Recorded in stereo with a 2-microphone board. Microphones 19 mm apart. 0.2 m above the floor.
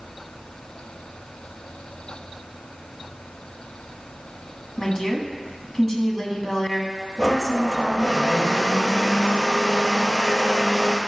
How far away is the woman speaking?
About 1.7 m.